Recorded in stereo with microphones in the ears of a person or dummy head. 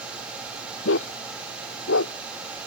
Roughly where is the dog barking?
Left.